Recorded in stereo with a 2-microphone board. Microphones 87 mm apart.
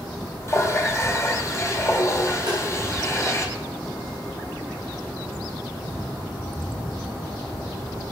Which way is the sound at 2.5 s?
55° right (ahead or behind).